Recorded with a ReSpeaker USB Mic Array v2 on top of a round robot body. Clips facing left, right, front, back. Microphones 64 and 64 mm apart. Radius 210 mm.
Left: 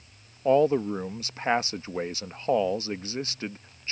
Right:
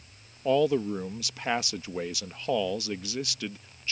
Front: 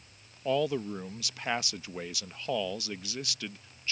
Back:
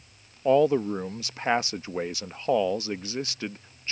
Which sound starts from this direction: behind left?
A man speaking, at 0.5 s.